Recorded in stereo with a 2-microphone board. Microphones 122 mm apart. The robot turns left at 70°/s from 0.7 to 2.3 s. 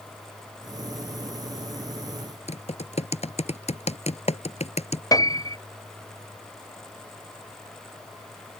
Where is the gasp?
No gasp in this recording.